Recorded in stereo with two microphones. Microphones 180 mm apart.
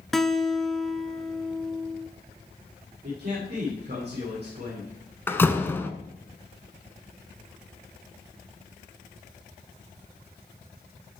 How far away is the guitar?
About 0.8 m.